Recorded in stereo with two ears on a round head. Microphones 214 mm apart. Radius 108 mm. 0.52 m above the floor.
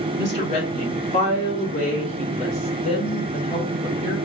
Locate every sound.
0.2 s a woman speaking: 25° left (ahead or behind), 1.4 m